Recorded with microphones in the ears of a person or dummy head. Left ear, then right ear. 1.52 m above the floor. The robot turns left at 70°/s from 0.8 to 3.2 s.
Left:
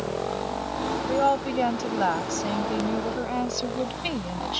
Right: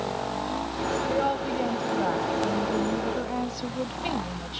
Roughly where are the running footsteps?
No running footsteps in this recording.